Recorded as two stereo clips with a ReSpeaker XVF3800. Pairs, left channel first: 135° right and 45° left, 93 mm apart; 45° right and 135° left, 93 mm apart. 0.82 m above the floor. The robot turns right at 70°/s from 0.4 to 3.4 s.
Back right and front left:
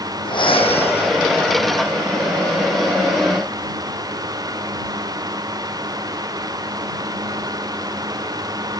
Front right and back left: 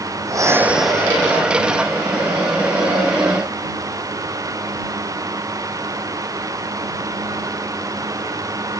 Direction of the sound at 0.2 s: 170° right.